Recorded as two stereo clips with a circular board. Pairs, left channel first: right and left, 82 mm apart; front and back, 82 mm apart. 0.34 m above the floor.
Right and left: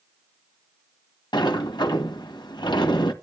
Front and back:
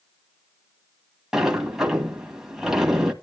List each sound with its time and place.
1.3 s a sliding door: 95° right, 1.9 m